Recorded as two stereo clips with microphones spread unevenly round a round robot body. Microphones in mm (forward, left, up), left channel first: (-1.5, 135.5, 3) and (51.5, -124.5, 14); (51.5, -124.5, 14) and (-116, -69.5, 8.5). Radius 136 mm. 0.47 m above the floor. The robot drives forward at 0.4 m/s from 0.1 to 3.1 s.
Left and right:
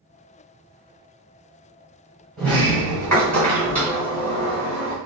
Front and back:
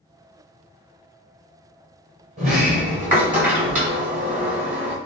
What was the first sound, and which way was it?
A sliding door, 175° right.